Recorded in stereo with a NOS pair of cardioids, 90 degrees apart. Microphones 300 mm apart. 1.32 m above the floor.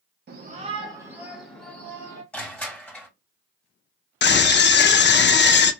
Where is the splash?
No splash in this recording.